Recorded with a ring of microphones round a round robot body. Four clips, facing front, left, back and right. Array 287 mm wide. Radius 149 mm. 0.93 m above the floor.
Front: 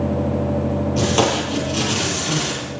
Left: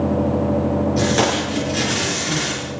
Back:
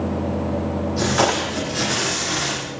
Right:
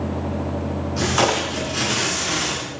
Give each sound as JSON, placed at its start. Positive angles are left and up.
{"t": 1.0, "sound": "tape being pulled", "azimuth_deg": 30, "distance_m": 8.0}